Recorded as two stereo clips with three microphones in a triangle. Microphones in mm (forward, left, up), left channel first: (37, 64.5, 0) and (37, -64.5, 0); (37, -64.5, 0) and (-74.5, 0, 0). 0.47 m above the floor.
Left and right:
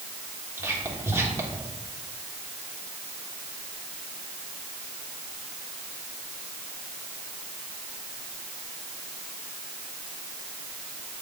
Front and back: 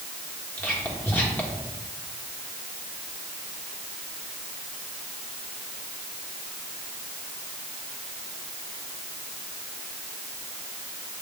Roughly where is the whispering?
Right.